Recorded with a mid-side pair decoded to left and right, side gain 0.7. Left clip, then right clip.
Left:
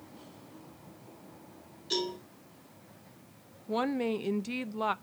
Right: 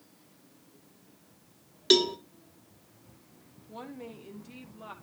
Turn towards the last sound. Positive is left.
turn(degrees=55)